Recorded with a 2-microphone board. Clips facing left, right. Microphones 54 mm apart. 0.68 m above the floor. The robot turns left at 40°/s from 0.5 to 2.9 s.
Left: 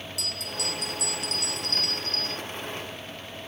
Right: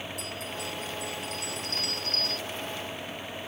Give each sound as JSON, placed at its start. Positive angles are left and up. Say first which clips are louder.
{"t": 0.2, "sound": "a bell", "louder": "left 1 dB", "azimuth_deg": 105}